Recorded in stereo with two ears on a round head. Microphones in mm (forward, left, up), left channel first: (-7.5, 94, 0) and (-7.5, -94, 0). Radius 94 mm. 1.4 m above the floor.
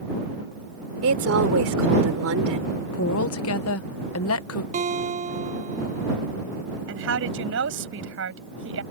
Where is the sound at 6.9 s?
70° right (ahead or behind).